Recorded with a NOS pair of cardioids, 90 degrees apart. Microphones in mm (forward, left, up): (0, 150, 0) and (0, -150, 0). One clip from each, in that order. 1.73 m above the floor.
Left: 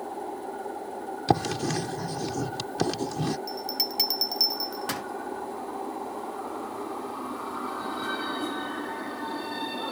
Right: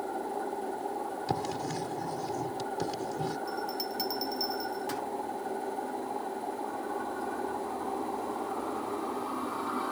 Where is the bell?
50° left.